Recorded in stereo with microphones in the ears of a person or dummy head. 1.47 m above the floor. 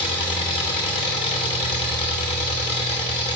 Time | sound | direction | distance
0.0 | an engine running | 30° left (ahead or behind) | 1.0 m